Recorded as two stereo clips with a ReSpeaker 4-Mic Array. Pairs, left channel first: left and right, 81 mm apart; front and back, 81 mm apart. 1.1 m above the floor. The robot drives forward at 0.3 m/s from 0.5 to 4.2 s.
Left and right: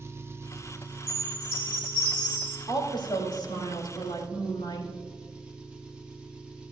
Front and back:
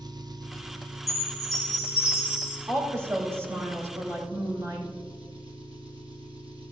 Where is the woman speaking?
120° left, 4.5 m; by 4.9 s 125° left, 5 m.